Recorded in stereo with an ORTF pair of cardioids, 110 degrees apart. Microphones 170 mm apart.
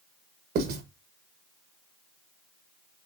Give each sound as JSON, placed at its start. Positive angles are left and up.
{"t": 0.6, "sound": "writing", "azimuth_deg": -70, "distance_m": 1.4}